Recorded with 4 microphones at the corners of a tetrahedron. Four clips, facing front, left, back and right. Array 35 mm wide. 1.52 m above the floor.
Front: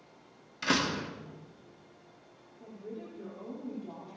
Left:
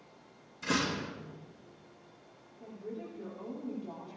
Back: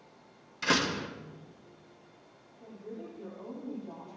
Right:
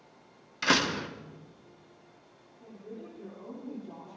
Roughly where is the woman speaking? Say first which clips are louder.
Left 2 dB, even; ahead left.